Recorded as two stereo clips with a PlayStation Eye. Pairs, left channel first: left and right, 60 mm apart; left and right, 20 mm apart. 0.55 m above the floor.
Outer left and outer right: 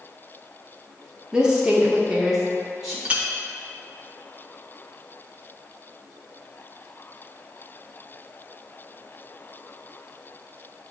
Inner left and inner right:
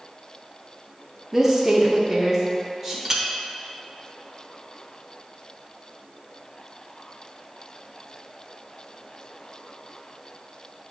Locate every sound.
1.3 s a woman speaking: 15° right (ahead or behind), 0.8 m; by 3.0 s 5° right (ahead or behind), 1.6 m
3.0 s a clink: 20° right (ahead or behind), 0.9 m